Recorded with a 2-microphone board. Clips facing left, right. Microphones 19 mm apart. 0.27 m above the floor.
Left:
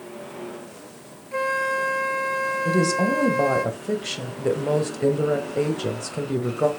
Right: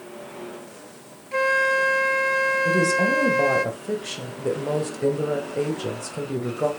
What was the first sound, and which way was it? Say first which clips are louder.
A flute: right 3 dB; 25° right (ahead or behind).